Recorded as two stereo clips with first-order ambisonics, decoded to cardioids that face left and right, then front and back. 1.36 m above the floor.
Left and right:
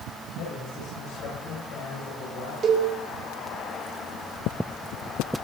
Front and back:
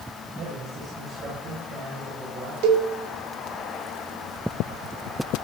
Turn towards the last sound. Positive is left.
turn(degrees=-155)